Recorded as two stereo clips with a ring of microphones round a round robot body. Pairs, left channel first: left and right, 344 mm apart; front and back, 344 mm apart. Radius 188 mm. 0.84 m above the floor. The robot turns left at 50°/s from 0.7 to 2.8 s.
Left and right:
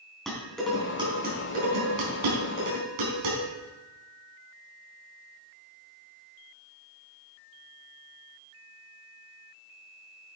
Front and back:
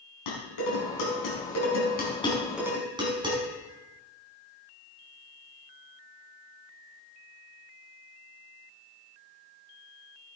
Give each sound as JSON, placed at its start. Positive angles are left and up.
{"t": 0.3, "sound": "dishes clattering", "azimuth_deg": 0, "distance_m": 5.5}